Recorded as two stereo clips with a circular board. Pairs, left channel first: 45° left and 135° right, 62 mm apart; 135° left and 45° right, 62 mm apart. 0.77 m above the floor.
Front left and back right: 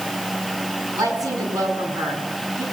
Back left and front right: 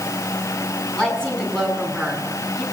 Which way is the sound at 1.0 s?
150° right.